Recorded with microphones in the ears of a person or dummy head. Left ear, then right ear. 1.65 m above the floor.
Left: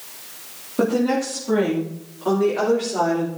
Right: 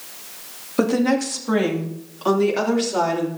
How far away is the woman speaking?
About 2.5 m.